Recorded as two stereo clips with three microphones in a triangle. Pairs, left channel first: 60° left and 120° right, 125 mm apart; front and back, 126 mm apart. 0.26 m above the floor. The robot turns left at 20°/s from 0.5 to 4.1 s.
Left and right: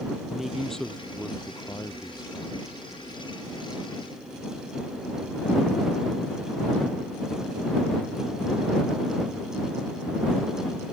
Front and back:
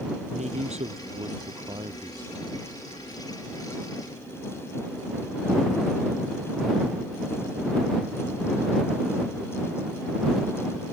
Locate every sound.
0.3 s a man speaking: 150° left; by 2.7 s 105° left